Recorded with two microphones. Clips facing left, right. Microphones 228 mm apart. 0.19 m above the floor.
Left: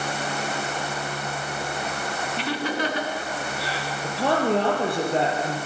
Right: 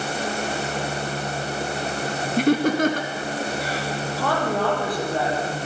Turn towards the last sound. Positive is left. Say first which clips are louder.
# left 4 dB
turn(degrees=25)  # may be behind; listen again after turning